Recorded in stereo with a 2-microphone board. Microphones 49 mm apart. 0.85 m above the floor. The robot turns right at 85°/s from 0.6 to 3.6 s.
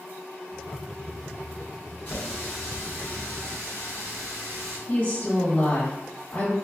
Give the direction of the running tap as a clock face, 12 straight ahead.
7 o'clock.